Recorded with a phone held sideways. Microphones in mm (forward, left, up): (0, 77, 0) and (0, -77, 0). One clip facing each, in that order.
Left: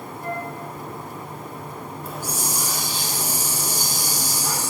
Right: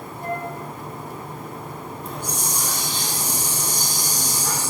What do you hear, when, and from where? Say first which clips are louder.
0.2 s a flute: right 2 dB; 25° right (ahead or behind), 1.2 m
2.0 s a hiss: left 1 dB; 5° left (ahead or behind), 0.6 m